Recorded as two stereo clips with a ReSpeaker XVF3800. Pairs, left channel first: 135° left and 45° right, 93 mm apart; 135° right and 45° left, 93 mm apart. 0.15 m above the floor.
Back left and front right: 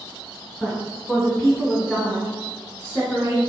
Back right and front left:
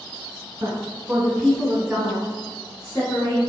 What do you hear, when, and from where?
0.6 s a woman speaking: 55° left, 1.4 m; by 3.4 s 150° right, 1.9 m